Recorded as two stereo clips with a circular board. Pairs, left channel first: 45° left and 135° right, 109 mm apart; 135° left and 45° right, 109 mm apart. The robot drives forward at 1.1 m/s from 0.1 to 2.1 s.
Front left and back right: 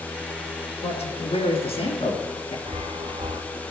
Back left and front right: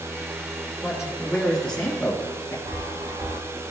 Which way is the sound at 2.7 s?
100° right.